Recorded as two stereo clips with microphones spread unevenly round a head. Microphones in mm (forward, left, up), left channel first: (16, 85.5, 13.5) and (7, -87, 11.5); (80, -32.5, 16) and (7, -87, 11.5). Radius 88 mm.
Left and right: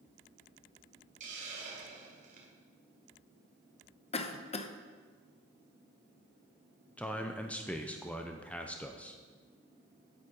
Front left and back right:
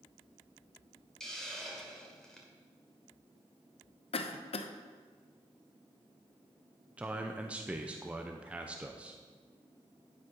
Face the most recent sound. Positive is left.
turn(degrees=160)